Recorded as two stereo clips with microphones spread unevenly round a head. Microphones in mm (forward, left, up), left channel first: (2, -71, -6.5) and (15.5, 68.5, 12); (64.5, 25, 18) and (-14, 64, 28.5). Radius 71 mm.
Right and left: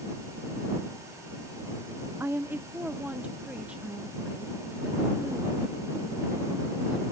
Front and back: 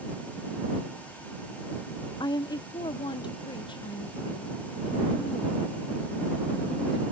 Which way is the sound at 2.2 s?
5° left.